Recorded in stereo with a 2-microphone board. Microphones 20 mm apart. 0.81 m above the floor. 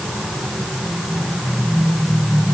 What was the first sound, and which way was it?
Only background noise.